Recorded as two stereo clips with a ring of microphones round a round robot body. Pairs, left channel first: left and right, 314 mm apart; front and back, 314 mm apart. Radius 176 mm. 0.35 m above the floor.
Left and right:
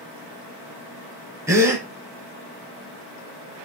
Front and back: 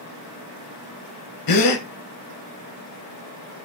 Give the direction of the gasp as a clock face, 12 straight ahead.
12 o'clock.